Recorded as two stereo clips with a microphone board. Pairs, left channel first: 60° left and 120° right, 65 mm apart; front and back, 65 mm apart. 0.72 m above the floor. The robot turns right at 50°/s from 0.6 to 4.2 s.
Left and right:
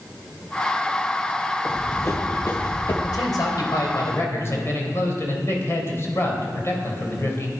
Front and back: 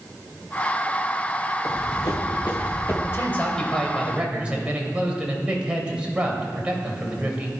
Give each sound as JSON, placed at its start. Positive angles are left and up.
{"t": 1.6, "sound": "running footsteps", "azimuth_deg": -30, "distance_m": 2.5}
{"t": 3.0, "sound": "a man speaking", "azimuth_deg": 50, "distance_m": 2.5}